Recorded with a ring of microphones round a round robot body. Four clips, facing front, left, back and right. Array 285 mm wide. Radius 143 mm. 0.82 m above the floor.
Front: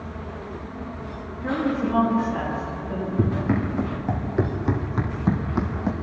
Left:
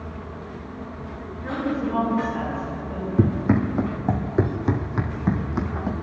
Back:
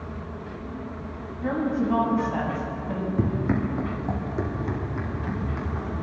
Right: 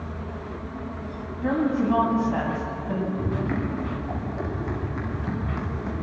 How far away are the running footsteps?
About 3.5 m.